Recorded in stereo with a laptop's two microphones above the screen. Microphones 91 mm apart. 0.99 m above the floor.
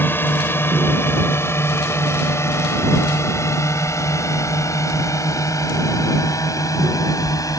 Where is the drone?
25° left (ahead or behind); by 7.6 s 40° left (ahead or behind).